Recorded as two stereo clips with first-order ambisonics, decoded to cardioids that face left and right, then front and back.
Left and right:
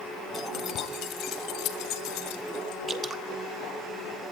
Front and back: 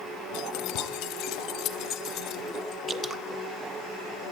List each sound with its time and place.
0.3 s keys jangling: 25° left, 1.9 m; by 2.8 s 60° left, 3 m
2.9 s dripping: 125° right, 1.0 m